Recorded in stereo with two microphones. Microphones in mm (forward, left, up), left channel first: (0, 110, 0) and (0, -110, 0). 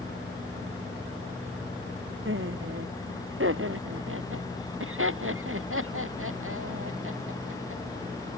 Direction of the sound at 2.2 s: 65° right (ahead or behind).